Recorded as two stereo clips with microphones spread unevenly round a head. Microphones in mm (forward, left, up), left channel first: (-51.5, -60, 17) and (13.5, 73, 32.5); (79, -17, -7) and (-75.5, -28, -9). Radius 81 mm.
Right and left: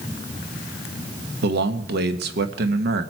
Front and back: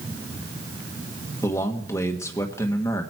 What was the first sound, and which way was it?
A man speaking, 80° left.